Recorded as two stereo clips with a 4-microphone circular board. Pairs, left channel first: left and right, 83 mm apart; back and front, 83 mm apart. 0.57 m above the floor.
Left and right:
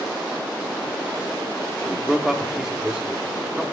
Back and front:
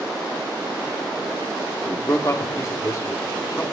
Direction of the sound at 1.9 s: 170° right.